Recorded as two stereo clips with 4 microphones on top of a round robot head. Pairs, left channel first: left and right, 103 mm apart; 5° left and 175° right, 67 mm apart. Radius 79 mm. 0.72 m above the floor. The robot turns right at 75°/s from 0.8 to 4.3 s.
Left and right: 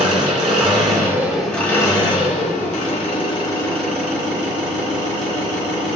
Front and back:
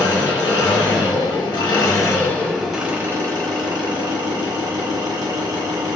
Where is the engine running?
45° right, 1.3 m; by 6.0 s 145° right, 1.3 m.